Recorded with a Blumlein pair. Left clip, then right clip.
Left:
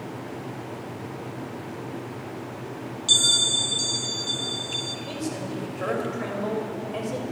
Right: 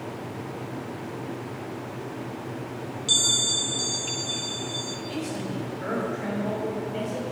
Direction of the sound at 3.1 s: 10° left.